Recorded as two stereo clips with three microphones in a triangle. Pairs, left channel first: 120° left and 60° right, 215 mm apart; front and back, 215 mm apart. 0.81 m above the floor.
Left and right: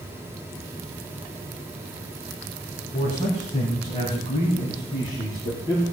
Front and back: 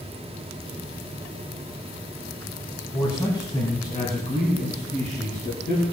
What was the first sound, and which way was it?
A man speaking, 70° left.